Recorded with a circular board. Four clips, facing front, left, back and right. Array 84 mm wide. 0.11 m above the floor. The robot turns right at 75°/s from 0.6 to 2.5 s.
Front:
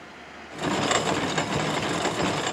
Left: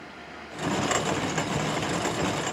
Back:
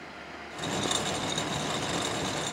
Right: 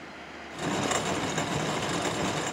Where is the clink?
I don't hear a clink.